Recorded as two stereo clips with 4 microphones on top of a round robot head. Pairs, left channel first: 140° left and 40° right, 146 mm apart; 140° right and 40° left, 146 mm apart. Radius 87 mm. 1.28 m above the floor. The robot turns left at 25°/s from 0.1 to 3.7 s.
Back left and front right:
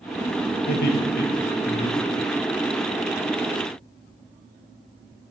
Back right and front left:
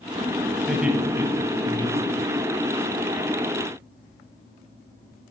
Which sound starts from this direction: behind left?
Laughter, at 0.7 s.